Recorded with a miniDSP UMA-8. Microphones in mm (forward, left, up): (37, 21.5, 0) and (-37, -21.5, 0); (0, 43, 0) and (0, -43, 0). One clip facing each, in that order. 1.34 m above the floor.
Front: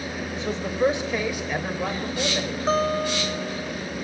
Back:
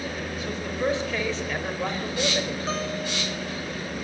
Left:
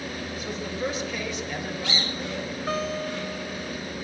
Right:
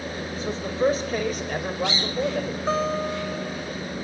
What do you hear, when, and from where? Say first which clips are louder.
0.3 s a man speaking: front 7 dB, right 7 dB; 30° right, 5 m; by 2.9 s 70° right, 5 m
2.7 s a guitar: front 7 dB, right 4 dB; 20° right, 3.5 m